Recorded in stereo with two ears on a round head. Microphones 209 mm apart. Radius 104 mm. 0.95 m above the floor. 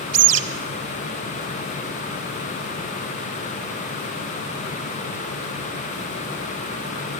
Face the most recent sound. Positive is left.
turn(degrees=-50)  # may be behind; listen again after turning